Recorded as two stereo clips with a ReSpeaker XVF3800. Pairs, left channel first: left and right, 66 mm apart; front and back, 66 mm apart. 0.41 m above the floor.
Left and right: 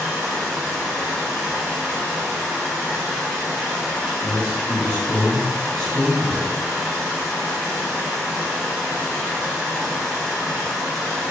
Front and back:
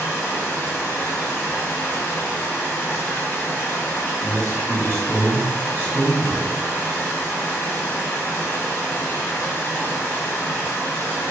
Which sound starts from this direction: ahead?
Running water, at 0.0 s.